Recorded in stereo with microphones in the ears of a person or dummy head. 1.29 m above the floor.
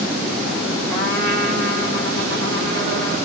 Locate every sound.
0.9 s a trumpet: 5° left (ahead or behind), 2 m